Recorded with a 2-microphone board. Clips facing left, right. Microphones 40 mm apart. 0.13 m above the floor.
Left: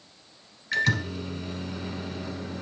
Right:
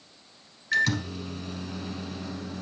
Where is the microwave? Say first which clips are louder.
Even; 5° left (ahead or behind), 1.0 m.